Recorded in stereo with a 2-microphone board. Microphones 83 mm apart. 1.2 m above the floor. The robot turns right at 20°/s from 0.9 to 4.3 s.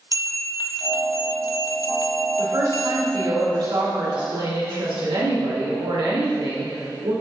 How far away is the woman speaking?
About 3.5 m.